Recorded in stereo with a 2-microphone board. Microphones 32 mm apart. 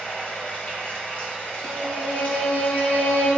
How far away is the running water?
About 1.3 m.